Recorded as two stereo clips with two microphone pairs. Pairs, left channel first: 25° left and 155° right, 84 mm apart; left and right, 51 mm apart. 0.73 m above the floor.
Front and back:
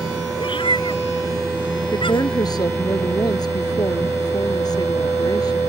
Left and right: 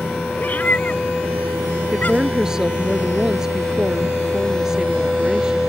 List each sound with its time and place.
0.4 s a cat meowing: 35° left
1.9 s a woman speaking: 15° right